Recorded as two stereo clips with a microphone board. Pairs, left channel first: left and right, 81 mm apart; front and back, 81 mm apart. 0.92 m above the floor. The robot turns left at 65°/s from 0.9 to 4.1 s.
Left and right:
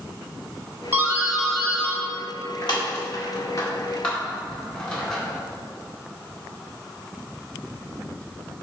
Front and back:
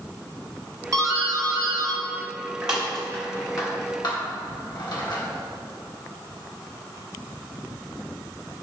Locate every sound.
0.9 s a doorbell: 145° right, 1.7 m; by 5.2 s 10° left, 1.7 m